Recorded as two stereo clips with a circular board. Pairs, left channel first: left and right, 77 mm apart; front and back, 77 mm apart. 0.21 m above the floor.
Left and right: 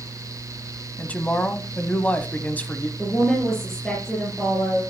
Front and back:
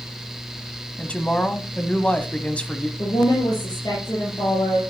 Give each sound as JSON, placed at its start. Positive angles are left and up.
{"t": 1.0, "sound": "a woman speaking", "azimuth_deg": 50, "distance_m": 1.0}
{"t": 3.0, "sound": "a woman speaking", "azimuth_deg": 10, "distance_m": 4.0}